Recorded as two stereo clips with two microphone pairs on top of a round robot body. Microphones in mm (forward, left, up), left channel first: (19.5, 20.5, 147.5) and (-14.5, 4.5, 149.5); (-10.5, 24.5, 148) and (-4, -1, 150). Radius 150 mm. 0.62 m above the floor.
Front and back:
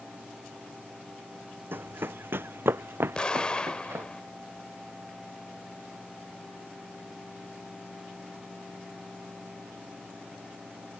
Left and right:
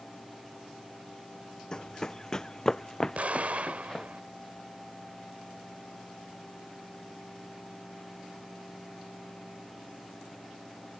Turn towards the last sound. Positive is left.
turn(degrees=-45)